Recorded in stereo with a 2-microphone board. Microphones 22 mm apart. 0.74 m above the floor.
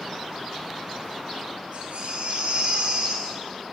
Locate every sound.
1.7 s a baby crying: 80° right, 7.5 m